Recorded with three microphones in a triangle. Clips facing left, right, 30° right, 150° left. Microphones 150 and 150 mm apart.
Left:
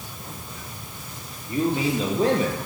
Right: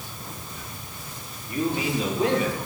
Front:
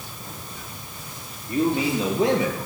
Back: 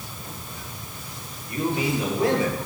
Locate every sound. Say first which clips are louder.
1.5 s a man speaking: left 3 dB, front 3 dB; 25° left, 4 m; by 2.6 s 40° left, 3.5 m